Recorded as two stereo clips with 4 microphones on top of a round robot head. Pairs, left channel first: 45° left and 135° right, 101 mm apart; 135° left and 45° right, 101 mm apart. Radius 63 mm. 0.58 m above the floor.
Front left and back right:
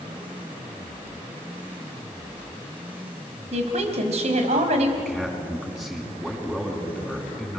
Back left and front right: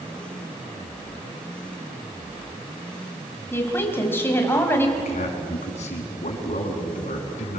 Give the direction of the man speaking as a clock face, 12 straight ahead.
7 o'clock.